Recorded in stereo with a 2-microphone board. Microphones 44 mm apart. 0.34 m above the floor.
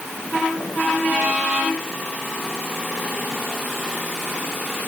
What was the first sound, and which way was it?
Only background noise.